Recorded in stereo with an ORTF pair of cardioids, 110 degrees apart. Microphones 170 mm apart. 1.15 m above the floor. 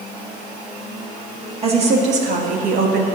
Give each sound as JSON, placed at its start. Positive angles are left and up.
{"t": 1.6, "sound": "a woman speaking", "azimuth_deg": -40, "distance_m": 1.9}